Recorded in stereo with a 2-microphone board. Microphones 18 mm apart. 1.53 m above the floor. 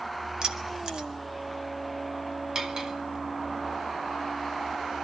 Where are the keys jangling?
55° right (ahead or behind), 1.7 m.